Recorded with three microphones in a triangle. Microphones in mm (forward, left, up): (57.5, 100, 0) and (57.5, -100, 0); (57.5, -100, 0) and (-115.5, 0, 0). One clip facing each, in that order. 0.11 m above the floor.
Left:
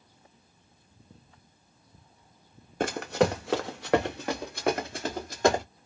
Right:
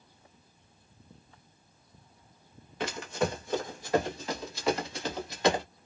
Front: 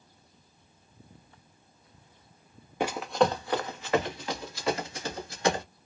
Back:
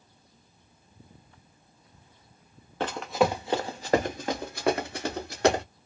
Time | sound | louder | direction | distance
2.8 | running footsteps | left 6 dB, even | 45° left | 0.6 m